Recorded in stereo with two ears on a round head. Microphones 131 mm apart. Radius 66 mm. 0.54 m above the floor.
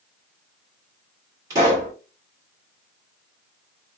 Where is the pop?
20° right (ahead or behind), 1.7 m.